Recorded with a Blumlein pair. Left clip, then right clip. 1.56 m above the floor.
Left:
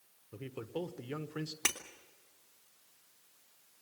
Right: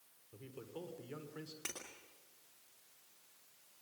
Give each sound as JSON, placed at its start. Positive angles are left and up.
{"t": 0.3, "sound": "a man speaking", "azimuth_deg": 30, "distance_m": 1.3}
{"t": 1.6, "sound": "breaking glass", "azimuth_deg": 60, "distance_m": 2.5}